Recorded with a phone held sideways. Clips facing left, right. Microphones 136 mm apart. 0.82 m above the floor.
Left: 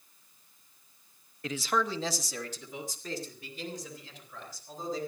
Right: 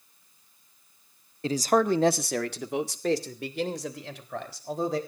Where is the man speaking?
30° right (ahead or behind), 0.8 m; by 5.0 s 85° right, 4 m.